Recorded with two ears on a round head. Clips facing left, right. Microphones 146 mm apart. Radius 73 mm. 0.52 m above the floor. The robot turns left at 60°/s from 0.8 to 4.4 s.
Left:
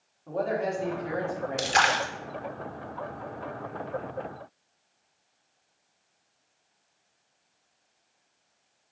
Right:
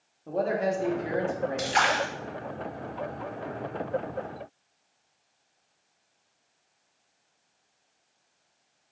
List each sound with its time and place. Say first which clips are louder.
0.3 s a man speaking: right 2 dB; 25° right (ahead or behind), 0.9 m; by 1.9 s 10° right (ahead or behind), 0.9 m
1.6 s a splash: left 3 dB; 40° left (ahead or behind), 0.6 m; by 2.1 s 65° left (ahead or behind), 0.6 m